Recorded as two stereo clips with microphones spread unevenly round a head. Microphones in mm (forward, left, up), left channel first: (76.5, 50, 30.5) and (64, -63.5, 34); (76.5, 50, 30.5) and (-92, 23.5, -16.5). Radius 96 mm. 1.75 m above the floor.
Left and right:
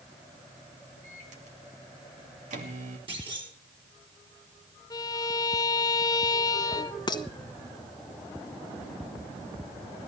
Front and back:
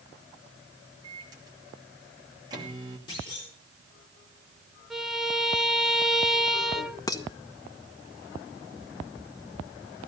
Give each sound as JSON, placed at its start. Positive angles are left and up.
{"t": 1.0, "sound": "a microwave", "azimuth_deg": -95, "distance_m": 2.5}
{"t": 3.1, "sound": "a clunk", "azimuth_deg": -55, "distance_m": 6.0}
{"t": 4.9, "sound": "a violin", "azimuth_deg": 70, "distance_m": 0.6}
{"t": 7.1, "sound": "dishes clattering", "azimuth_deg": 50, "distance_m": 1.0}